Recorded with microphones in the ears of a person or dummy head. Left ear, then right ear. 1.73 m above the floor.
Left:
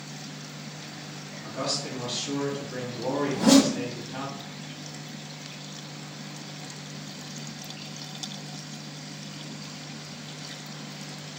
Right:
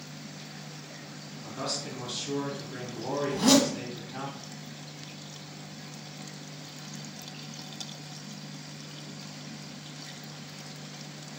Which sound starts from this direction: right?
A zipper, at 3.3 s.